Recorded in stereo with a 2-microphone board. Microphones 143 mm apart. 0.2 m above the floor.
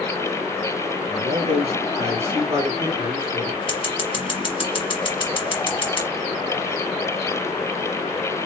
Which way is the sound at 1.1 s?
50° right (ahead or behind).